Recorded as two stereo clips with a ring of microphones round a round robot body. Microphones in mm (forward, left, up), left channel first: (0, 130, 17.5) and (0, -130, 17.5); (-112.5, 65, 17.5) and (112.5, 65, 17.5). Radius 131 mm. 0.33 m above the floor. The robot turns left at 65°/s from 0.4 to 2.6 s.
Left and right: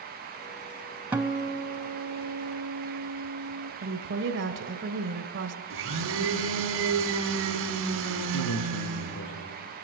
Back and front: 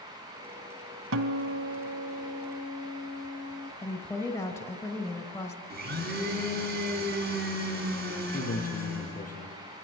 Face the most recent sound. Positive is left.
turn(degrees=130)